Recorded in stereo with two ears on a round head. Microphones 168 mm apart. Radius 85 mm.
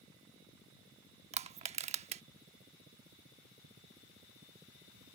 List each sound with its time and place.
1.3 s crushing: 35° right (ahead or behind)